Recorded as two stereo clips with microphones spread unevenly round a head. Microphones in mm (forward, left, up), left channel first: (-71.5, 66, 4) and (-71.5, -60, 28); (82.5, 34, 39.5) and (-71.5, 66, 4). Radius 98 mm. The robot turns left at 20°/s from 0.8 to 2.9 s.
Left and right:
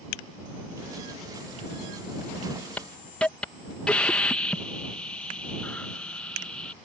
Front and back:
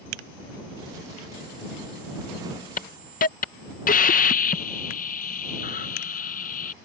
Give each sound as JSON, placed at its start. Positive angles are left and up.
{"t": 2.8, "sound": "a hiss", "azimuth_deg": 20}